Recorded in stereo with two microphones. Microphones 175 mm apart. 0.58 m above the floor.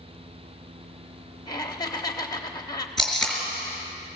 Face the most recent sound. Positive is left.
turn(degrees=0)  # may be behind; listen again after turning